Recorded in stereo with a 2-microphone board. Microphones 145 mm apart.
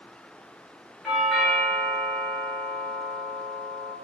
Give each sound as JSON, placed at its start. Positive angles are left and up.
{"t": 1.0, "sound": "a doorbell", "side_deg": 0, "distance_m": 1.5}